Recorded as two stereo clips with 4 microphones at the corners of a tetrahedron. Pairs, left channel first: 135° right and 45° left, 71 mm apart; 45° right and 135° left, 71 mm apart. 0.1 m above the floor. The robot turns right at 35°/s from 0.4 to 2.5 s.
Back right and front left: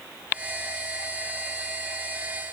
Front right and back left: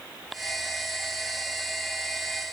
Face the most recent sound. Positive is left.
No sound to turn to.